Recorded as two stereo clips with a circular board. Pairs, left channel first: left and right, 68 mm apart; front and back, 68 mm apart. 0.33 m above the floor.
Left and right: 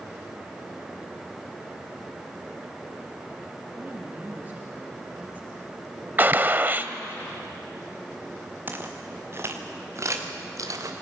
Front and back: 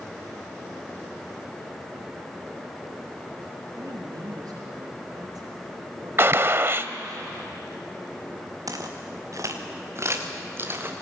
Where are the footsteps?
150° right, 3 m; by 10.9 s 120° right, 3 m.